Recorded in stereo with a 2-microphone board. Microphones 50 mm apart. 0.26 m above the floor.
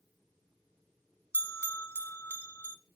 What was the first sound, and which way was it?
A bell, 60° left (ahead or behind).